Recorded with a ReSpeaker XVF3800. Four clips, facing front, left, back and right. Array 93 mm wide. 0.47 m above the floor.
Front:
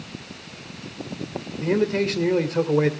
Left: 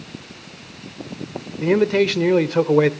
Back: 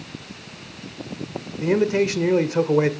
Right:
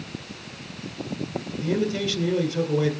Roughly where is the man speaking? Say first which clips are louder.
Left 9 dB, back 2 dB; left.